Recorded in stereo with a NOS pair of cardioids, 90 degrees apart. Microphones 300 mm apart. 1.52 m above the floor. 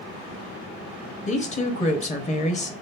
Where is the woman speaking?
25° left, 0.8 m.